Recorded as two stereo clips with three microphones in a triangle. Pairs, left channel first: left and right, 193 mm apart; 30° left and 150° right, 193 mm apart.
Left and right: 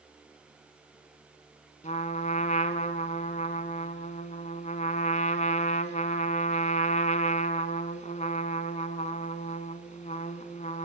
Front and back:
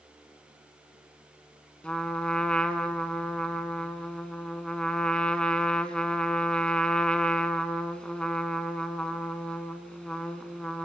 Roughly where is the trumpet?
Left.